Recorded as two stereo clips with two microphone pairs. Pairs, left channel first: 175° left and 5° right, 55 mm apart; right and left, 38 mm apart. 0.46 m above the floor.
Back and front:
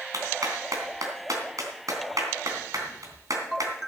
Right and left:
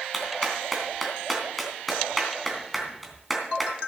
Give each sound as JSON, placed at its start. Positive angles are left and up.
{"t": 0.1, "sound": "a clap", "azimuth_deg": 0, "distance_m": 3.0}